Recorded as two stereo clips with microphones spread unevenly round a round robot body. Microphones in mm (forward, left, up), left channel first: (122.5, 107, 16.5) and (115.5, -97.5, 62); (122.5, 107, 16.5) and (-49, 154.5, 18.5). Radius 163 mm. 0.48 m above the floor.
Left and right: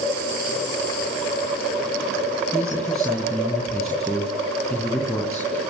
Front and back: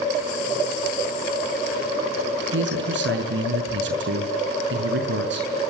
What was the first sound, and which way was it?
A man speaking, 175° left.